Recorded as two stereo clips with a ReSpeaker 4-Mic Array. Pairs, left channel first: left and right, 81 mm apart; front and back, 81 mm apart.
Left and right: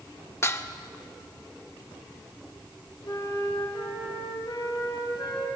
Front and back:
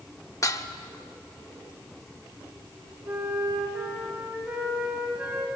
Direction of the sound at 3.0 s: 105° left.